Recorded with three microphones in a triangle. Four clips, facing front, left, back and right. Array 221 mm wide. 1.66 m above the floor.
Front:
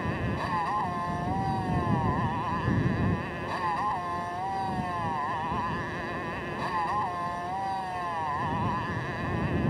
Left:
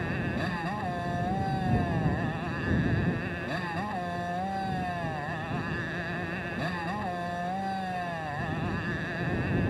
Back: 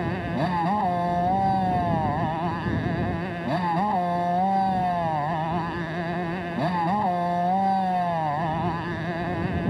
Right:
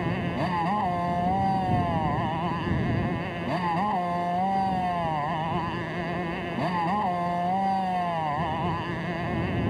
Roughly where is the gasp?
No gasp in this recording.